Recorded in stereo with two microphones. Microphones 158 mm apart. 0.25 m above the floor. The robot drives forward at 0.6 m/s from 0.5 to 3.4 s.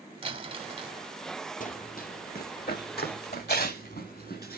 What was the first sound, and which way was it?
Crumpling, 35° right (ahead or behind).